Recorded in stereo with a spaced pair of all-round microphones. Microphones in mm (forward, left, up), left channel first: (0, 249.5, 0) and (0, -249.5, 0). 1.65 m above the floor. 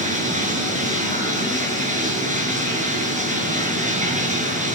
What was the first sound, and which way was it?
Running water, 15° right (ahead or behind).